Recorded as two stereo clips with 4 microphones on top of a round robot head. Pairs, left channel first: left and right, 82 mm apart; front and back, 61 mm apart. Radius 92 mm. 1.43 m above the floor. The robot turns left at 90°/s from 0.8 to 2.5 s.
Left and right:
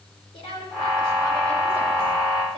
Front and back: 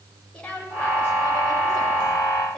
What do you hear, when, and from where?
0.3 s a woman speaking: 75° left, 6.5 m; by 2.6 s 80° right, 6.5 m